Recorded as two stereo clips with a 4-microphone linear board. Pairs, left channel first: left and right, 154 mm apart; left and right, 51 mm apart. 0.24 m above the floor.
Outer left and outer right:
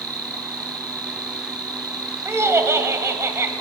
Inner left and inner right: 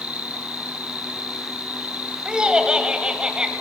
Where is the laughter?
20° right (ahead or behind), 1.0 m.